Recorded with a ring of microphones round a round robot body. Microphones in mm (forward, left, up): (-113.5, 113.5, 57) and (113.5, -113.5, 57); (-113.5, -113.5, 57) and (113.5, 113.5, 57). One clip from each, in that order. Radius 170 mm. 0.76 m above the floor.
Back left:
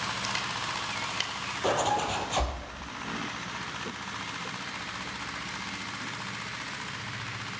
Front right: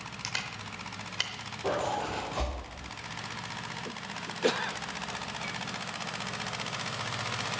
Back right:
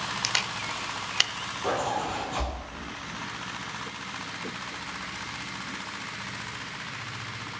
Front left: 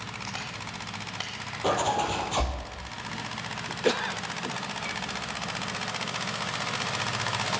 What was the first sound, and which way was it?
A camera shutter, 130° right.